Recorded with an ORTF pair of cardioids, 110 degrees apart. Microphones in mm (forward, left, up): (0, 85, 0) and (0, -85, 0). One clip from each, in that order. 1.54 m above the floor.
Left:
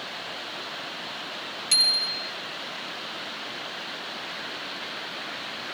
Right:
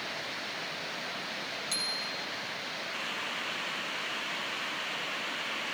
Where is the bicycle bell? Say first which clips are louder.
Left 13 dB; 60° left, 2 m.